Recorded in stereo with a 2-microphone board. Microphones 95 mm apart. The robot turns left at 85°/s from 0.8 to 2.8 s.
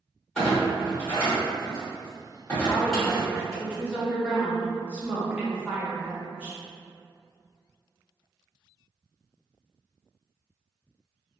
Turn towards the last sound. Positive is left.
turn(degrees=-10)  # may be behind; listen again after turning